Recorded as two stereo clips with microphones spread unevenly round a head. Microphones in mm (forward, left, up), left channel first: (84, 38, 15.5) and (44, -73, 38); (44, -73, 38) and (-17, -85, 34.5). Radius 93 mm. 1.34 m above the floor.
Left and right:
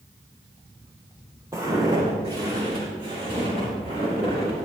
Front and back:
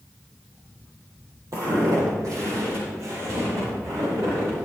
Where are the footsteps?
170° right, 2.5 m; by 4.7 s 145° right, 7 m.